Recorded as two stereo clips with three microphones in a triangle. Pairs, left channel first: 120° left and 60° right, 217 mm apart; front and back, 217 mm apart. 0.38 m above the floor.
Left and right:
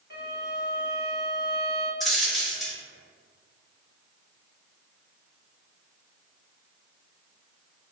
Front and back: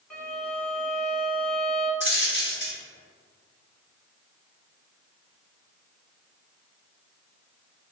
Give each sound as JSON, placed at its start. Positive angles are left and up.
{"t": 0.1, "sound": "a violin", "azimuth_deg": 85, "distance_m": 1.1}
{"t": 2.0, "sound": "a dropped coin", "azimuth_deg": 30, "distance_m": 1.3}